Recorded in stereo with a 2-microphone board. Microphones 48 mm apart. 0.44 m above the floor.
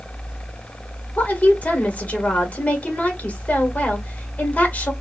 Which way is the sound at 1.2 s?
35° left (ahead or behind).